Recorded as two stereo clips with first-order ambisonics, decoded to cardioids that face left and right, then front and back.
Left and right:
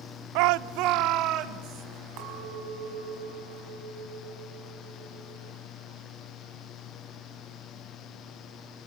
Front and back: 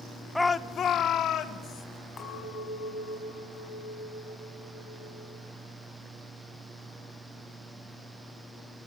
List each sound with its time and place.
0.3 s a shout: 90° right, 0.6 m; by 1.9 s 45° right, 2.5 m
2.2 s a clink: 65° right, 5.5 m